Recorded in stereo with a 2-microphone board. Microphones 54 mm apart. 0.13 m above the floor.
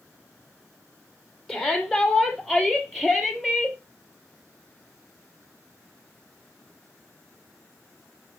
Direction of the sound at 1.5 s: Centre (ahead or behind).